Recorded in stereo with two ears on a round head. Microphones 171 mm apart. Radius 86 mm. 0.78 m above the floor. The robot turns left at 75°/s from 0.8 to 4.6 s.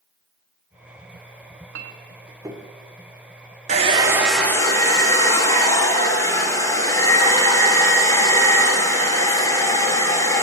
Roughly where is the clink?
Right.